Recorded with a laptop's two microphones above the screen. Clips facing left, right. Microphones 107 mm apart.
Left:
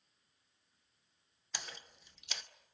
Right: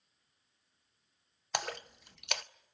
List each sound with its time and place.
1.5 s a splash: 65° right (ahead or behind), 0.5 m